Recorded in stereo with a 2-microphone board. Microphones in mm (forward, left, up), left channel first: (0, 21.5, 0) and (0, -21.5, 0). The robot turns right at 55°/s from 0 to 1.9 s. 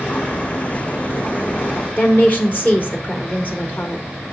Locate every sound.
2.0 s a woman speaking: 40° left (ahead or behind), 2.0 m